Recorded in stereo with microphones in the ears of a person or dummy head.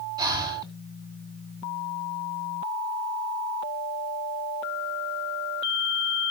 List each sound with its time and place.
0.2 s breathing: 25° right (ahead or behind), 9.5 m